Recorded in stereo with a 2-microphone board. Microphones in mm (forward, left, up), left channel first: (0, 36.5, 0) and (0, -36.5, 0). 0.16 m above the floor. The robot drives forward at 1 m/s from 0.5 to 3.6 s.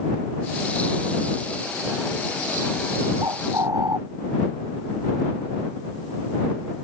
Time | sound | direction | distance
3.2 | a bird | 65° right (ahead or behind) | ?